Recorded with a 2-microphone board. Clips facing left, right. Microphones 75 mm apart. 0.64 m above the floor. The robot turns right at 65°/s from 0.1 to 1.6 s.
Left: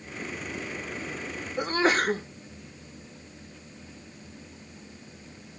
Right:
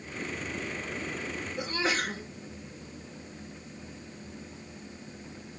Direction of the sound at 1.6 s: 50° left (ahead or behind).